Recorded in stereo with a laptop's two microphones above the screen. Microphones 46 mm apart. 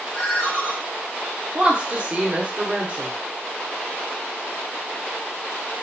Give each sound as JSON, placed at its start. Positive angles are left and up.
{"t": 0.1, "sound": "a ringtone", "side_deg": 60, "distance_m": 0.8}
{"t": 1.6, "sound": "a woman speaking", "side_deg": -25, "distance_m": 0.6}